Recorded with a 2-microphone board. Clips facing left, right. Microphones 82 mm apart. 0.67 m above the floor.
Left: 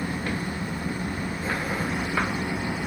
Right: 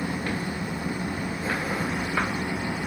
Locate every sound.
0.0 s an engine running: 15° right (ahead or behind)